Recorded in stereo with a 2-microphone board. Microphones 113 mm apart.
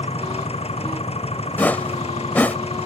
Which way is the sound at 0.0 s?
65° left (ahead or behind).